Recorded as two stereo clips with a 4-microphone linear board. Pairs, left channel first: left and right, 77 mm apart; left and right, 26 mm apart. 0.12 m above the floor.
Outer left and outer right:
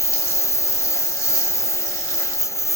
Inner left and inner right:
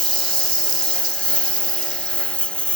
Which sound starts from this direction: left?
A lawn mower, at 0.0 s.